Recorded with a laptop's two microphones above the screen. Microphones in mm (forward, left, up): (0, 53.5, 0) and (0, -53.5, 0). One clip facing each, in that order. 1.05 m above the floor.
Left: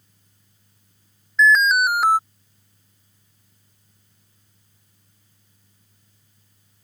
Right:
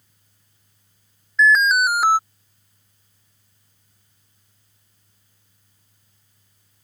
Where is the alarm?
Centre (ahead or behind).